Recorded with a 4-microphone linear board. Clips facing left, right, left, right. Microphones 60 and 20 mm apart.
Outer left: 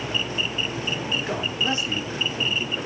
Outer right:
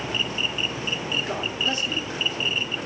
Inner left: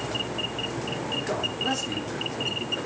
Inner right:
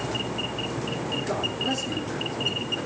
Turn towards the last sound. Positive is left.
turn(degrees=30)  # may be behind; listen again after turning